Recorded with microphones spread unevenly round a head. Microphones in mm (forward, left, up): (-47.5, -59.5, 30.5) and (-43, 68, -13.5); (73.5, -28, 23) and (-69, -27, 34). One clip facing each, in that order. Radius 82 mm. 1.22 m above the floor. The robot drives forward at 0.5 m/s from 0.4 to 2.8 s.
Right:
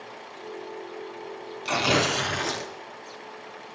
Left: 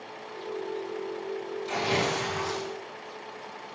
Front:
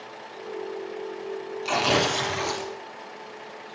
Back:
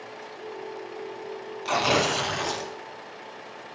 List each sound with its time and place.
1.6 s tearing paper: 85° right, 1.7 m; by 2.7 s 100° right, 1.7 m